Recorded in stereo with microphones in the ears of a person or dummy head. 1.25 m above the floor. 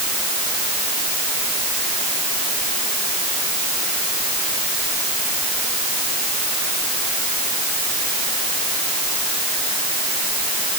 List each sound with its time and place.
Only background noise.